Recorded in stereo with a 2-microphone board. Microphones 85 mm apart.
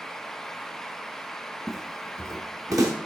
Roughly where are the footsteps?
Centre.